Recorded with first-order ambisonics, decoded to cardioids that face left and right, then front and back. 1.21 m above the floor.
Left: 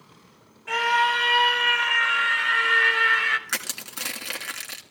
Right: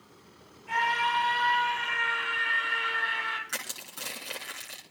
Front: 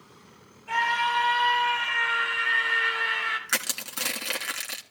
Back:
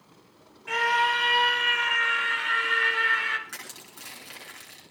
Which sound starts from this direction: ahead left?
Crushing, at 3.5 s.